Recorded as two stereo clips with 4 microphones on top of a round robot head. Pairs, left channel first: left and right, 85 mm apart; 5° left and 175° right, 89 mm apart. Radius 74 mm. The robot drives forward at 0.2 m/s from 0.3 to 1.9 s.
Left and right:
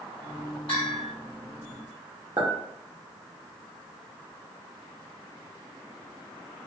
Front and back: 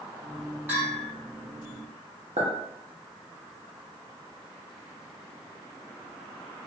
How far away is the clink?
About 0.8 m.